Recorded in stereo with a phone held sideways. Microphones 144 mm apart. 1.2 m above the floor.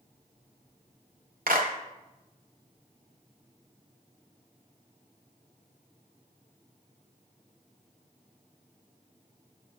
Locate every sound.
1.5 s a clap: 85° right, 1.0 m